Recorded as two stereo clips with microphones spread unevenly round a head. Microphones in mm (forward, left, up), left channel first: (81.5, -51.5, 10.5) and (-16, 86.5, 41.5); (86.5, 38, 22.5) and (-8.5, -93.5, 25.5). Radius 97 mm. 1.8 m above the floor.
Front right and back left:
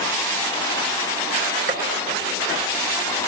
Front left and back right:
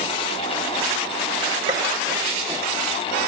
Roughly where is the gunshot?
Behind.